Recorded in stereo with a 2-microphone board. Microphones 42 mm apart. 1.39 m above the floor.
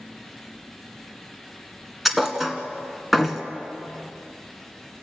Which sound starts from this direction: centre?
A thud, at 2.0 s.